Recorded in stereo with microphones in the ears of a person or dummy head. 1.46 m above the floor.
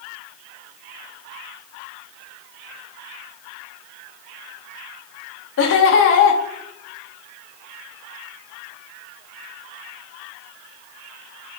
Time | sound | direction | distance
5.6 | laughter | 55° left (ahead or behind) | 0.8 m